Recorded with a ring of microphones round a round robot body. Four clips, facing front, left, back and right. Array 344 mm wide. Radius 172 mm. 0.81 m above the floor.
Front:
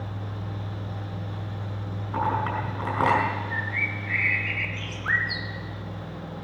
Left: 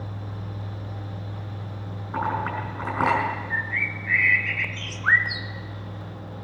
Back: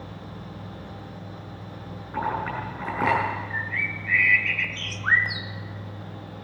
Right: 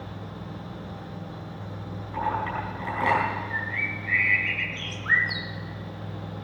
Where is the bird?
135° left, 0.8 m.